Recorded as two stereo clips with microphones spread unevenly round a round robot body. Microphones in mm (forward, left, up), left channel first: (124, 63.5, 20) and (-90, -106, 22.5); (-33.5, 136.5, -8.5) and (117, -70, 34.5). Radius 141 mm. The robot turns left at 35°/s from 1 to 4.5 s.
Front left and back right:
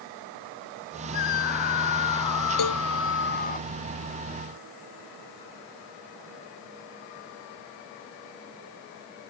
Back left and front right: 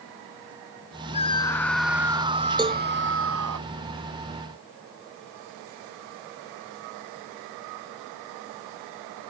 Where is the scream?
60° left; by 3.6 s 25° right.